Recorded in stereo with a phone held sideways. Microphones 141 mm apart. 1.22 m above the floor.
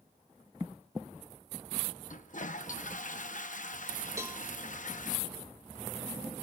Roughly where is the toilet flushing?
Left.